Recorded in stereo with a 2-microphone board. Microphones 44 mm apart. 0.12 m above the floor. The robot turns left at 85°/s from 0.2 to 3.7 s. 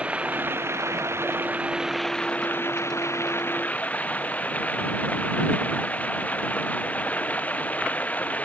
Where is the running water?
30° right; by 8.4 s 35° left.